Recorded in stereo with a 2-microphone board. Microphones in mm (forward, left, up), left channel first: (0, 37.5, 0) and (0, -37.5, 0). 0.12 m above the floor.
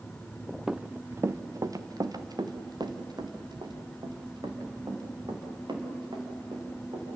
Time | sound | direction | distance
0.7 | running footsteps | 10° right (ahead or behind) | 0.7 m